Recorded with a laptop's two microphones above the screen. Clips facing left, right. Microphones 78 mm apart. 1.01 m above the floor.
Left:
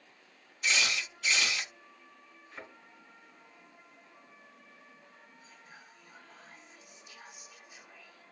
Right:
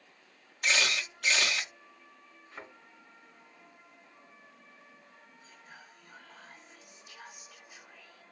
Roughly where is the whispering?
Right.